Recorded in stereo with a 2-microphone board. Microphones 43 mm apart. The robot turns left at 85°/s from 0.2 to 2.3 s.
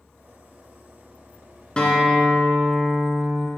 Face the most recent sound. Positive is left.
turn(degrees=-15)